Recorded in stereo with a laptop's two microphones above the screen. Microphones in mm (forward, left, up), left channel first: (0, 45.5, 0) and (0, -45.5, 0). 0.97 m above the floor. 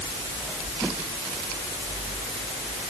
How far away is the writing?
No writing in this recording.